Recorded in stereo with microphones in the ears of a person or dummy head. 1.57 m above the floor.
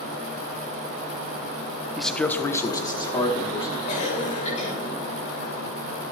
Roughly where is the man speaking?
Centre.